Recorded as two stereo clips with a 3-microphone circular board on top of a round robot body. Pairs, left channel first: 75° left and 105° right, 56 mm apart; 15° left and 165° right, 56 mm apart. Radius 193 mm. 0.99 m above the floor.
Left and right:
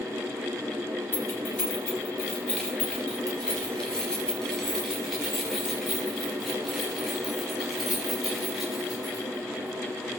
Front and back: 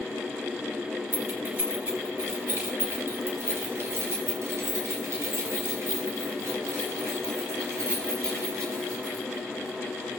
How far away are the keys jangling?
About 4.5 m.